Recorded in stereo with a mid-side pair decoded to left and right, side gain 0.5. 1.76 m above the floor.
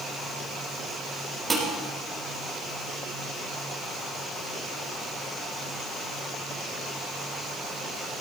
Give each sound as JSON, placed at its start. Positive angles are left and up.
{"t": 1.5, "sound": "dishes clattering", "azimuth_deg": -15, "distance_m": 6.0}